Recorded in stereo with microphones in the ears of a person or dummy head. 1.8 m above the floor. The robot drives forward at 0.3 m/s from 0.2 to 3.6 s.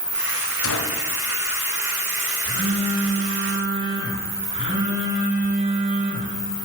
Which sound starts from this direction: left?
A gunshot, at 0.6 s.